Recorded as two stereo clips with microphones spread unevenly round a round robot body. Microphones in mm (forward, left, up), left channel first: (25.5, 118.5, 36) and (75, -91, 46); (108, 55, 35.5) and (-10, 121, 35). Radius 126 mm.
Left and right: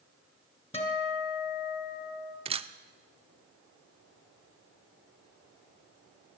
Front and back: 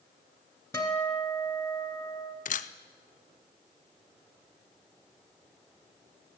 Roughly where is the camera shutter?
Ahead.